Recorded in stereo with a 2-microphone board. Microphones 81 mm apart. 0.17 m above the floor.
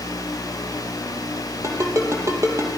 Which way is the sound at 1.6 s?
35° right (ahead or behind).